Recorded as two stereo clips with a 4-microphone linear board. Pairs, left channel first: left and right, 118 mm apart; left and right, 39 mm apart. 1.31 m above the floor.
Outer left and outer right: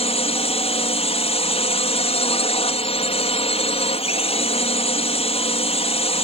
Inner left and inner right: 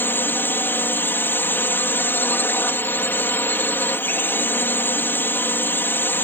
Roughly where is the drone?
Left.